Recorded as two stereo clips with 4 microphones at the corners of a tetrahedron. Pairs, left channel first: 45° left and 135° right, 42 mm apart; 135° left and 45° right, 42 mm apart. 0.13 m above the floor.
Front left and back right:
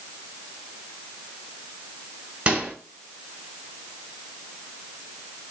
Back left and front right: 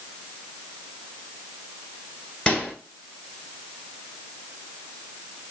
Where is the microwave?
165° right, 1.6 m.